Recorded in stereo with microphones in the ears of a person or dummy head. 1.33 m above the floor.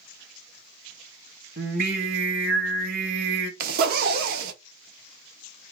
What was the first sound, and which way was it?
Singing, 50° right (ahead or behind).